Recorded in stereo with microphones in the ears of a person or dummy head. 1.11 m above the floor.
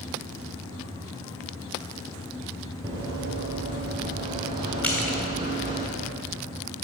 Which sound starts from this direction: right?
Running footsteps, at 2.8 s.